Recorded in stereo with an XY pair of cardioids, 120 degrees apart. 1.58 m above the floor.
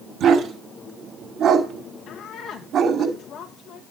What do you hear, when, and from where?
0.2 s a dog barking: 60° right, 6 m
2.1 s a woman speaking: 70° left, 2.5 m